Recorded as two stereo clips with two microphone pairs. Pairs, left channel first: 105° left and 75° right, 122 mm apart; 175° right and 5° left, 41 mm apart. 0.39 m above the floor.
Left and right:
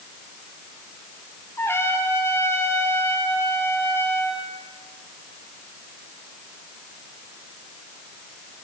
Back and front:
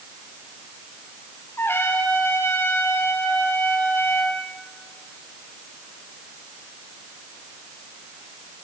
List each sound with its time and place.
1.6 s a trumpet: 175° left, 4 m